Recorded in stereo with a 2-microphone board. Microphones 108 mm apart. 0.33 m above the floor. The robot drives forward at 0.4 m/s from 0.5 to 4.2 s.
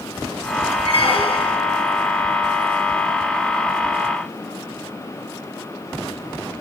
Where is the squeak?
60° left (ahead or behind), 1.6 m; by 1.6 s 55° left (ahead or behind), 1.8 m.